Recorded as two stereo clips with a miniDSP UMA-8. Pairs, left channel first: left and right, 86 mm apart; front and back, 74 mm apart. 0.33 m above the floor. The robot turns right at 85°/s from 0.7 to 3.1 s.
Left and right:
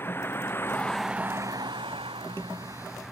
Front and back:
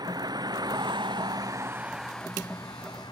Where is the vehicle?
155° left; by 3.1 s straight ahead.